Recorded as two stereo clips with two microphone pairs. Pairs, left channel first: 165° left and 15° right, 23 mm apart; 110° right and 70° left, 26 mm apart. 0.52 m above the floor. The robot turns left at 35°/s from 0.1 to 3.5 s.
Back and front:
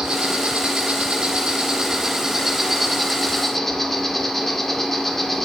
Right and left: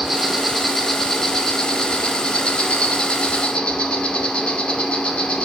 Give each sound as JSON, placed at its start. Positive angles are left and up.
{"t": 0.0, "sound": "an insect", "azimuth_deg": 0, "distance_m": 1.8}